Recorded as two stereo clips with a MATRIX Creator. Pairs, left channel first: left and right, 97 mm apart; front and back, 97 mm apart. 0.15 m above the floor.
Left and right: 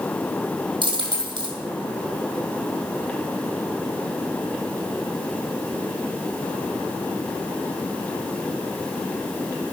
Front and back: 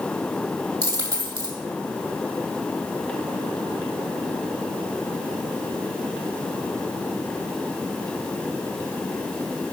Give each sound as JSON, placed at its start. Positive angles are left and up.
{"t": 0.8, "sound": "a dropped coin", "azimuth_deg": -130, "distance_m": 2.0}